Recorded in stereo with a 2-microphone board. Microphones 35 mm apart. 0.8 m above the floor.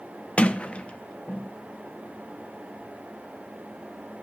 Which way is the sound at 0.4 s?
40° left (ahead or behind).